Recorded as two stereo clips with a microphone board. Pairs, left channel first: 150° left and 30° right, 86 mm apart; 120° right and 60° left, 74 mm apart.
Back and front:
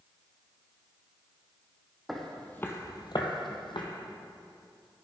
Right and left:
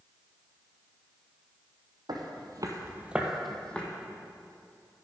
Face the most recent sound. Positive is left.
turn(degrees=170)